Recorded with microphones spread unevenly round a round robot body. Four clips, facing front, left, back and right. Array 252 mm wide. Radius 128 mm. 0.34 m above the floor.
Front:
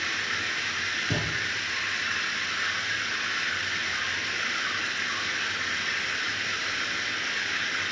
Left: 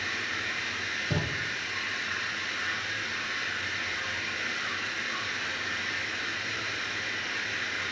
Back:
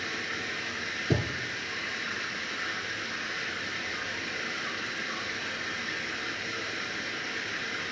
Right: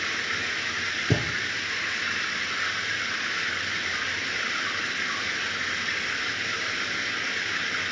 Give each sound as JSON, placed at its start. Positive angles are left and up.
{"t": 0.0, "sound": "running water", "azimuth_deg": -65, "distance_m": 3.0}
{"t": 1.1, "sound": "a thud", "azimuth_deg": -105, "distance_m": 2.5}